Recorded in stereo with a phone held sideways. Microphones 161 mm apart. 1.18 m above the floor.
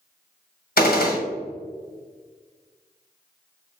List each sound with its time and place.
0.8 s a gunshot: 70° left (ahead or behind), 1.3 m